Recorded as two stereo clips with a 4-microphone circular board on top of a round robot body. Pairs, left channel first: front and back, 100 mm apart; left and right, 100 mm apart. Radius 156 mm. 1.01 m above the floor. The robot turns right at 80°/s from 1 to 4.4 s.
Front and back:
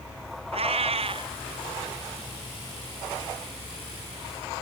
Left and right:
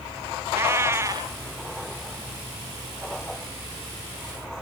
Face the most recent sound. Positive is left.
turn(degrees=115)